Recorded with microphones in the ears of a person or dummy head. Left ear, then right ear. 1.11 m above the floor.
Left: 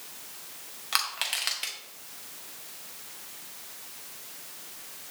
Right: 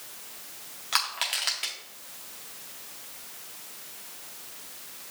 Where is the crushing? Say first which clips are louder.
Right 1 dB; centre (ahead or behind), 0.6 m.